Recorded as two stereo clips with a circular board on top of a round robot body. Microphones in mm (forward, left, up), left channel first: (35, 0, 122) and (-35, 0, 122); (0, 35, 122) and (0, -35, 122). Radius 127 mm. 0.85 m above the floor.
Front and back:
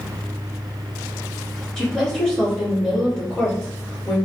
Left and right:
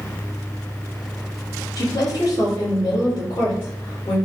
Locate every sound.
1.8 s a woman speaking: 75° left, 1.9 m